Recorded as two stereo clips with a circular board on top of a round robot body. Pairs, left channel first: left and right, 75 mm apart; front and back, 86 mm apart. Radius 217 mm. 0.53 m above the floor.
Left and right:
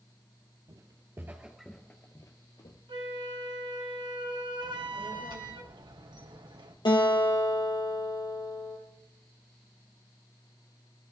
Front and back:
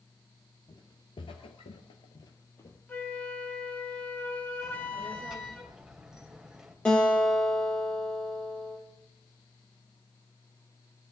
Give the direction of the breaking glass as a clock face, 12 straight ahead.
No breaking glass in this recording.